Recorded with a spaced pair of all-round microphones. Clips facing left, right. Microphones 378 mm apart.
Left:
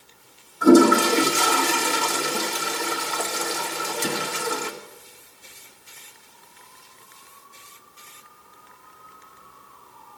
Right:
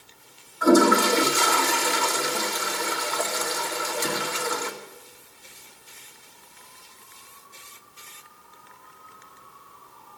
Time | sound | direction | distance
0.6 | a toilet flushing | 45° left (ahead or behind) | 1.1 m